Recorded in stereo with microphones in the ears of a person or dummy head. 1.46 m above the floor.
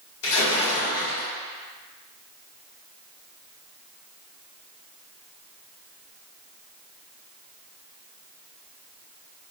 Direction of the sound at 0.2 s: 70° left (ahead or behind).